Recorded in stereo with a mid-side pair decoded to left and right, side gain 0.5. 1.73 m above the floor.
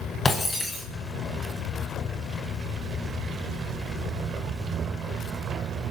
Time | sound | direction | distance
0.2 | breaking glass | 30° left | 5.5 m